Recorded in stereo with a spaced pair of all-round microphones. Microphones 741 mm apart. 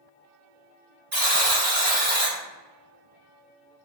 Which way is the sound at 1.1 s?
30° right (ahead or behind).